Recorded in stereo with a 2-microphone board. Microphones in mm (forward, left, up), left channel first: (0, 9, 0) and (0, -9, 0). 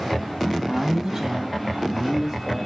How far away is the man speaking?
About 4 m.